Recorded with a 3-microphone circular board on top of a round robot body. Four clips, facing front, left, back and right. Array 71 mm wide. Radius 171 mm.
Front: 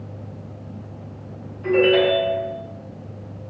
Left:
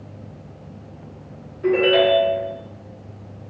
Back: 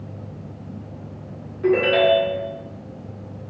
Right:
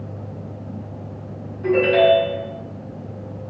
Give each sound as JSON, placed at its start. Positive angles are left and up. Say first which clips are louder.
{"t": 1.6, "sound": "a ringtone", "louder": "right 1 dB, even", "azimuth_deg": 170, "distance_m": 2.0}